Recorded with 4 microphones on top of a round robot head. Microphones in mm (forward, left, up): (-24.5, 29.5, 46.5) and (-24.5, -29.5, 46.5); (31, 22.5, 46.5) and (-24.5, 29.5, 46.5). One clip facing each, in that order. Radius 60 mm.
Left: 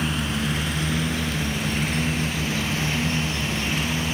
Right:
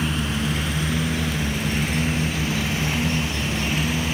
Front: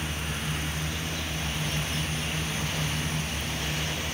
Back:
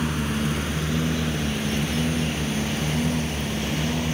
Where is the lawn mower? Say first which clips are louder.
Right 1 dB, back 8 dB; straight behind; by 4.1 s 175° right.